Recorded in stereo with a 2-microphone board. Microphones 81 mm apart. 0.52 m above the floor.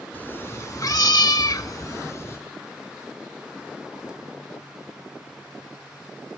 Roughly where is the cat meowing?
Left.